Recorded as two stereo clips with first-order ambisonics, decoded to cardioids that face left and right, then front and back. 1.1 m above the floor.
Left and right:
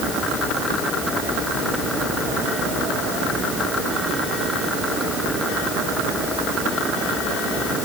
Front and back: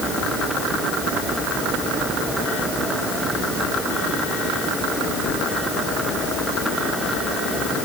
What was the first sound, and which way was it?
Only background noise.